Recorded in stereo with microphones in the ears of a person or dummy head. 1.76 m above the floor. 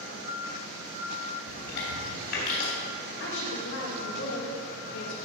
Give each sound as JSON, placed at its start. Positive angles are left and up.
{"t": 1.5, "sound": "chewing", "side_deg": 65, "distance_m": 3.0}
{"t": 3.2, "sound": "a woman speaking", "side_deg": 65, "distance_m": 2.5}